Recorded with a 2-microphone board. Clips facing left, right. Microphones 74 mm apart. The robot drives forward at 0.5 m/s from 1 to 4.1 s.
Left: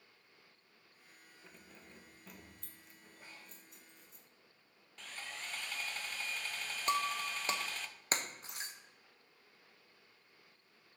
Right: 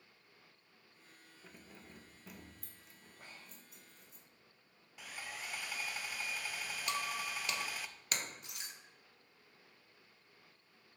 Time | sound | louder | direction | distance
1.4 | keys jangling | right 2 dB | 10° right (ahead or behind) | 0.8 m
3.2 | breathing | right 1 dB | 55° right (ahead or behind) | 3.5 m
5.0 | sawing | right 1 dB | 10° right (ahead or behind) | 0.6 m
6.9 | breaking glass | left 6 dB | 35° left (ahead or behind) | 0.9 m